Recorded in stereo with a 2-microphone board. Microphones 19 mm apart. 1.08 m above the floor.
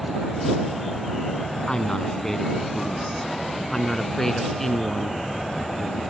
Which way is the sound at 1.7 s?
30° left (ahead or behind).